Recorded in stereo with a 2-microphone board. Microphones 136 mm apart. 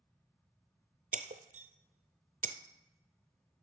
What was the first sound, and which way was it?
Breaking glass, 80° right.